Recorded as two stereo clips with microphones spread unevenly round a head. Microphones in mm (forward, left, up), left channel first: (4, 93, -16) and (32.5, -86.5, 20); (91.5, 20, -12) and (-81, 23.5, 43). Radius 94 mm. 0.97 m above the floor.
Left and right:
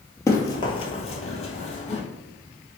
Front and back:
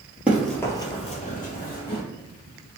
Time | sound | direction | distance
0.3 | running footsteps | straight behind | 1.0 m